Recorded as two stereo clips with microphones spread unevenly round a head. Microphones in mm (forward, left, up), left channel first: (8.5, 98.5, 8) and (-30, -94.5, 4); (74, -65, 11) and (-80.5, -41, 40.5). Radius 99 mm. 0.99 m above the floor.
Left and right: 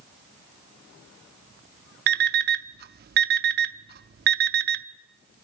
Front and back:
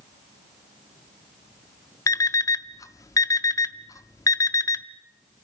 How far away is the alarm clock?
About 0.6 m.